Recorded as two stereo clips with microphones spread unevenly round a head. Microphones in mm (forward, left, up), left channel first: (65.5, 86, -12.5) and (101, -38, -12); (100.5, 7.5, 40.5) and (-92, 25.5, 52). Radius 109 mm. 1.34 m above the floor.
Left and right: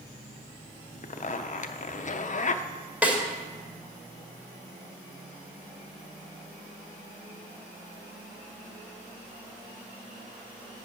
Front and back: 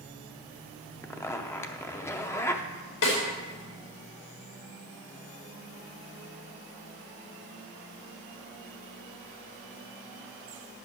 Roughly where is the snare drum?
Ahead.